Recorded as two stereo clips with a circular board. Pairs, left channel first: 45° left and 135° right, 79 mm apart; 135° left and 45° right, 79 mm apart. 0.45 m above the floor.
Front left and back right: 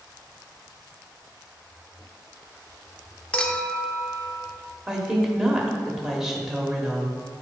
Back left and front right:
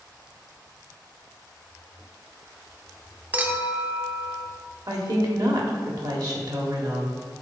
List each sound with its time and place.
3.3 s a clink: 10° right, 0.5 m
4.9 s a woman speaking: 55° right, 1.3 m